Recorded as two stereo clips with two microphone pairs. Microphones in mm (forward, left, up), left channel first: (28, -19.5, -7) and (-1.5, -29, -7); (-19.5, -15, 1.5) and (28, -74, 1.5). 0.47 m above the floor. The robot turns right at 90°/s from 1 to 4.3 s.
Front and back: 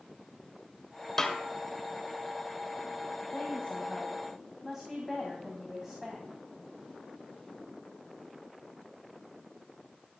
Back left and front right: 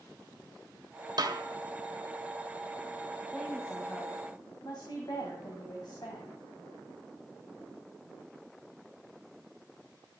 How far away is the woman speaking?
About 2.5 m.